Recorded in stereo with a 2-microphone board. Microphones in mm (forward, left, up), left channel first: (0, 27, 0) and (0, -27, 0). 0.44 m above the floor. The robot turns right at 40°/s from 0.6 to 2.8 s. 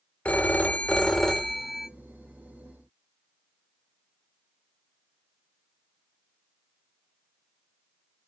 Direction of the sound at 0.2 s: 145° left.